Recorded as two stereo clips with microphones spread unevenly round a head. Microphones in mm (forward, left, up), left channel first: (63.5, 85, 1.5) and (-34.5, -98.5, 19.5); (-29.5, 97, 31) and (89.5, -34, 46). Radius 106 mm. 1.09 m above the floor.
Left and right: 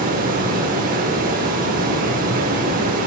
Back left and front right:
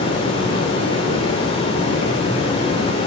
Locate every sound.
0.0 s running water: 165° right, 1.3 m